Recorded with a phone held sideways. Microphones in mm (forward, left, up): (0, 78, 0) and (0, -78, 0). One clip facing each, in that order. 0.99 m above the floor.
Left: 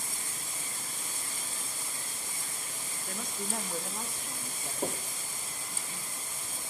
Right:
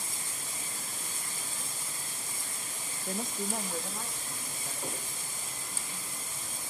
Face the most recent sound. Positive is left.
turn(degrees=65)  # may be behind; listen again after turning